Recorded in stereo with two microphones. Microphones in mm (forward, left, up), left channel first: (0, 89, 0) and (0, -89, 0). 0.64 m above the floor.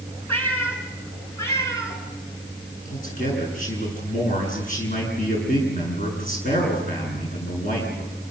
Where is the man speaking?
45° left (ahead or behind), 9 m.